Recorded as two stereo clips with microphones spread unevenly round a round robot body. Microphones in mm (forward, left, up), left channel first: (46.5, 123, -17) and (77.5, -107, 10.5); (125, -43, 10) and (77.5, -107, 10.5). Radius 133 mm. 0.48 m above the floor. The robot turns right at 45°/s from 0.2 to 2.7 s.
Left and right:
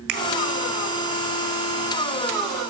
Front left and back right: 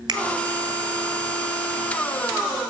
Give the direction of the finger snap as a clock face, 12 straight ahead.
3 o'clock.